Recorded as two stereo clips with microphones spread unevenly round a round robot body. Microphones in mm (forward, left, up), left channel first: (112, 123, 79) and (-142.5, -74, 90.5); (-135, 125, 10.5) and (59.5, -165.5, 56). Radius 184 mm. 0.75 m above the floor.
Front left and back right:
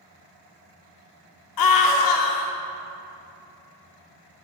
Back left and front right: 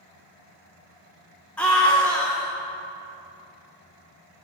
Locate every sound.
1.6 s a scream: 40° left, 1.9 m